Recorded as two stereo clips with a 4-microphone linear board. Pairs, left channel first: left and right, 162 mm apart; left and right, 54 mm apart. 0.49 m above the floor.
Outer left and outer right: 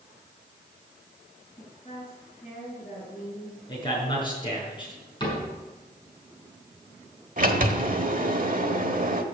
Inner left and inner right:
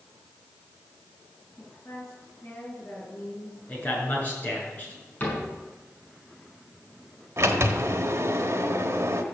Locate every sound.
1.6 s a woman speaking: 30° left (ahead or behind), 6.5 m
3.7 s a man speaking: 30° left (ahead or behind), 6 m
5.2 s a cupboard door: 30° left (ahead or behind), 6 m
7.4 s a sliding door: 55° right (ahead or behind), 1.3 m